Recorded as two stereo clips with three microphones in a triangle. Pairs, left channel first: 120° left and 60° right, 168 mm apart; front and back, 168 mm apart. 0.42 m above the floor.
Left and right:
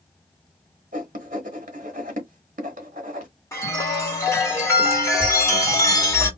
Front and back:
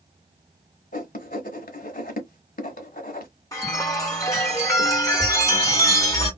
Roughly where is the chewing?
I don't hear chewing.